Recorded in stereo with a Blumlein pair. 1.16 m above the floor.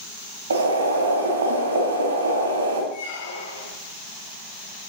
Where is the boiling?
70° right, 2.5 m.